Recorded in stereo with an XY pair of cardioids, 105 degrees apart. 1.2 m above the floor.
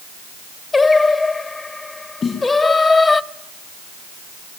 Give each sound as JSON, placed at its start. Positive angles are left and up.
{"t": 0.7, "sound": "singing", "azimuth_deg": 35, "distance_m": 1.3}
{"t": 2.2, "sound": "a snare drum", "azimuth_deg": 50, "distance_m": 7.0}